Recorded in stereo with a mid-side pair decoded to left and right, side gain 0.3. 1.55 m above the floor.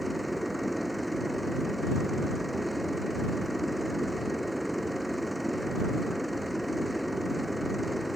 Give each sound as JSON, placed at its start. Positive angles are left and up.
{"t": 0.0, "sound": "a machine running", "azimuth_deg": -5}